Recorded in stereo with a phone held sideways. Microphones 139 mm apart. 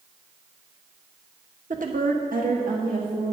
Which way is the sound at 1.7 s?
65° right (ahead or behind).